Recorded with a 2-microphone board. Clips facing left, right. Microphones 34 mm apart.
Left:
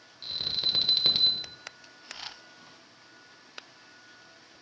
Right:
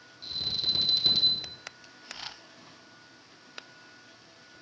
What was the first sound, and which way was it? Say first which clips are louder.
An alarm: left 1 dB; 30° left (ahead or behind).